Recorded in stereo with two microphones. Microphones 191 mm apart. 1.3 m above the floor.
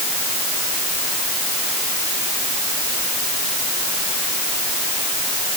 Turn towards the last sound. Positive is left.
No sound to turn to.